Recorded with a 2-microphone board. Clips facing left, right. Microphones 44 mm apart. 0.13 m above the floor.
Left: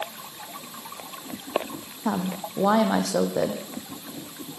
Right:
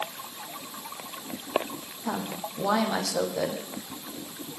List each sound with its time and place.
2.0 s a woman speaking: 45° left (ahead or behind), 5 m